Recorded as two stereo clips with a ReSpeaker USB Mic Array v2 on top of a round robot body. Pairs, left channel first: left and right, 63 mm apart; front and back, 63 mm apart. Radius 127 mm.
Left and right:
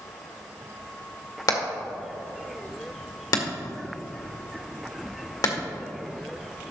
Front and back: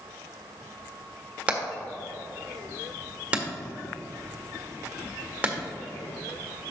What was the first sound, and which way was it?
Hammering, 110° left.